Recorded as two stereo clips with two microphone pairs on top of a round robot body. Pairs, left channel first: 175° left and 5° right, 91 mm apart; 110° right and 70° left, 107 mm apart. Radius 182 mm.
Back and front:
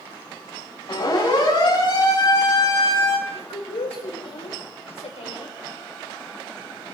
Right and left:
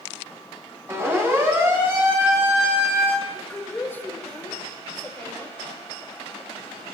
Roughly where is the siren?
Behind left.